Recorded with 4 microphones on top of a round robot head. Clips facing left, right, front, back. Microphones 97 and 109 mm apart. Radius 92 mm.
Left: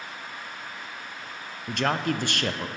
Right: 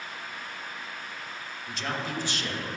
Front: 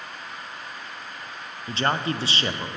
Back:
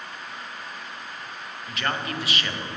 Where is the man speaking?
60° left, 0.5 m.